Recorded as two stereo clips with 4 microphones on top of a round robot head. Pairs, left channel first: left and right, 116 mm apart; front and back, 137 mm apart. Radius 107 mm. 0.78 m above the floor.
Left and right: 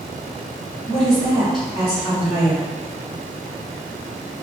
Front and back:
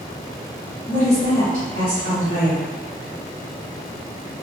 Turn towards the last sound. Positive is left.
turn(degrees=-40)